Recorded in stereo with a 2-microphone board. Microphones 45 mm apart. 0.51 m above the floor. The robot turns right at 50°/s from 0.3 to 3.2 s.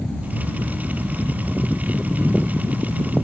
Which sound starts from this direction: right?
An aircraft, at 0.0 s.